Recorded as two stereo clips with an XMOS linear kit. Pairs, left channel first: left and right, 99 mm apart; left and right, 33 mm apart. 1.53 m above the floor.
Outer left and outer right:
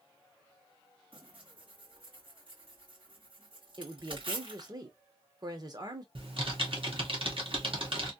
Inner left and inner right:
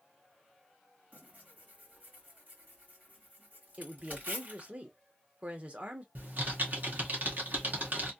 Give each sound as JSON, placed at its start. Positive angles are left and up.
{"t": 1.1, "sound": "tearing paper", "side_deg": -60, "distance_m": 2.5}
{"t": 3.8, "sound": "a woman speaking", "side_deg": -40, "distance_m": 1.2}
{"t": 6.2, "sound": "typing on a keyboard", "side_deg": -65, "distance_m": 1.4}